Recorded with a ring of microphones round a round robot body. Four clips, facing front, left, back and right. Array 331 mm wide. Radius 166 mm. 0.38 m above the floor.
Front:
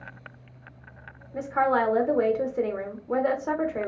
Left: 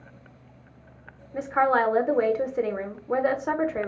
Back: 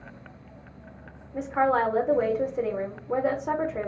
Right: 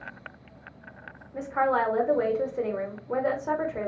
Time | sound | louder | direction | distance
1.3 | a woman speaking | left 3 dB, even | 75° left | 0.8 m